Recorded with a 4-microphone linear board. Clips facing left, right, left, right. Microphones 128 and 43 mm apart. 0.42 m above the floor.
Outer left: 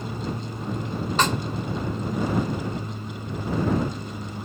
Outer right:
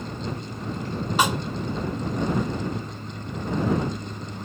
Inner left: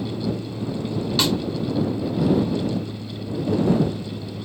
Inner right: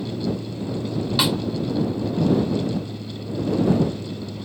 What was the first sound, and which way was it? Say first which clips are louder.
An aircraft: outer left 1 dB, even; 20° left (ahead or behind).